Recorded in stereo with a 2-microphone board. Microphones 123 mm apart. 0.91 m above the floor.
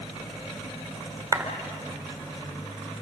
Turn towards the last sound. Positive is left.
turn(degrees=-25)  # may be behind; listen again after turning